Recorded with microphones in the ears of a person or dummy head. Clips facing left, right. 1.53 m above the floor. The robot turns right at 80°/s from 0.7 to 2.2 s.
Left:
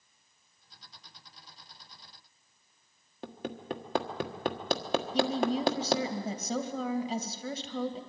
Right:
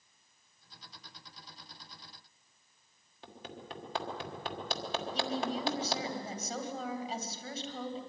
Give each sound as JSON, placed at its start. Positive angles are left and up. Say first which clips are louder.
{"t": 3.2, "sound": "hammering", "louder": "left 9 dB", "side_deg": 45, "distance_m": 1.4}
{"t": 5.1, "sound": "a woman speaking", "louder": "left 7 dB", "side_deg": 60, "distance_m": 2.5}